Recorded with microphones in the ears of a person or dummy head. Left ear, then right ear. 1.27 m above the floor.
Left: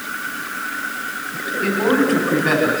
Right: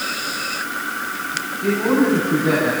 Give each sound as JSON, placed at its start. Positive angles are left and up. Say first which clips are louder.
{"t": 1.6, "sound": "a man speaking", "louder": "left 1 dB", "side_deg": 40, "distance_m": 9.5}